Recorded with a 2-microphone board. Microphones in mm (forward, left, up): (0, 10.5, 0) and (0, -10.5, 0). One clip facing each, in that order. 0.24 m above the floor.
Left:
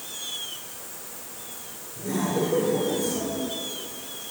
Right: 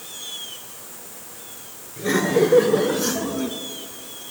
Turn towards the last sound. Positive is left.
turn(degrees=-55)  # may be behind; listen again after turning